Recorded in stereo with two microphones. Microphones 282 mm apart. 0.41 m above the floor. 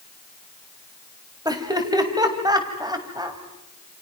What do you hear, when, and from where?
1.4 s laughter: 15° right (ahead or behind), 3 m